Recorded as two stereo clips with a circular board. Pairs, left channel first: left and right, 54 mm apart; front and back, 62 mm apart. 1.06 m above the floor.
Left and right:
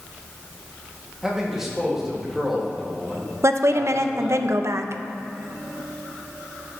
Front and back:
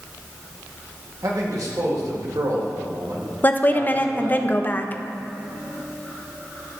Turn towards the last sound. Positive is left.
turn(degrees=-60)